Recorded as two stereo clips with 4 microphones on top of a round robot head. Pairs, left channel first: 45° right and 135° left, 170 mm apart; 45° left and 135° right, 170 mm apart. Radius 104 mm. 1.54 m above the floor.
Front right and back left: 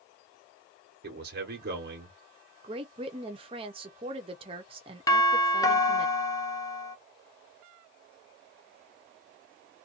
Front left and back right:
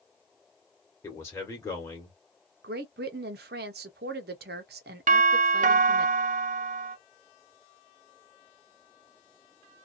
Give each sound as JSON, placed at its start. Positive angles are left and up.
{"t": 1.0, "sound": "a man speaking", "azimuth_deg": 120, "distance_m": 1.0}
{"t": 2.6, "sound": "a woman speaking", "azimuth_deg": -165, "distance_m": 0.5}
{"t": 5.1, "sound": "a doorbell", "azimuth_deg": -110, "distance_m": 0.6}